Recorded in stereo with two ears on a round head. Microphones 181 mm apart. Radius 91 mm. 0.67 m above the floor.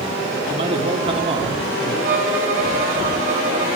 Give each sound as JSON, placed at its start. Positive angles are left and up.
{"t": 0.5, "sound": "a man speaking", "side_deg": -30, "distance_m": 1.6}
{"t": 2.0, "sound": "a violin", "side_deg": -40, "distance_m": 1.7}